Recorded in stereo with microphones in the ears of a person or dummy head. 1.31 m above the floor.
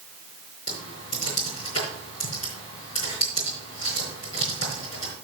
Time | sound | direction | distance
0.7 | typing on a keyboard | 50° left (ahead or behind) | 4.5 m